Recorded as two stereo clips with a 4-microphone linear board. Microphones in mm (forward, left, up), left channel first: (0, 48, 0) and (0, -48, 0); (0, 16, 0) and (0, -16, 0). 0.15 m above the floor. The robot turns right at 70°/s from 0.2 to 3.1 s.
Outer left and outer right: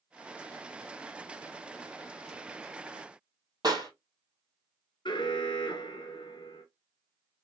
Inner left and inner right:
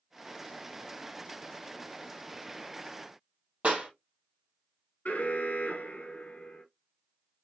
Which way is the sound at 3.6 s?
40° right (ahead or behind).